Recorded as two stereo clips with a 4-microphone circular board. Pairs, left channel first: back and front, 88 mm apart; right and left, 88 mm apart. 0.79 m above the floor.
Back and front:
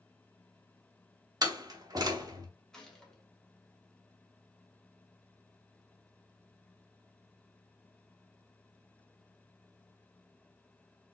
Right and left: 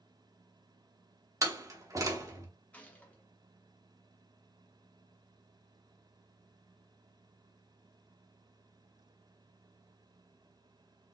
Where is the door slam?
40° left, 0.9 m.